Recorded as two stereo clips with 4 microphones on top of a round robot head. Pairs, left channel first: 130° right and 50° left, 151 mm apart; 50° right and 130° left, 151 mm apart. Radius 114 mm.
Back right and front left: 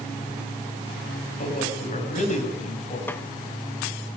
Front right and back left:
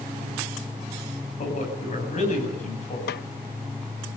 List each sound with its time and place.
1.4 s a man speaking: 90° right, 8 m
3.1 s a snare drum: 55° right, 0.6 m